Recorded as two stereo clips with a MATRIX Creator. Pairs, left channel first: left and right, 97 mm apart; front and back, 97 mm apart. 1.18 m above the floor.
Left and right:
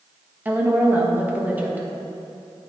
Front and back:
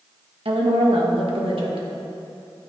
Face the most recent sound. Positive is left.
turn(degrees=-160)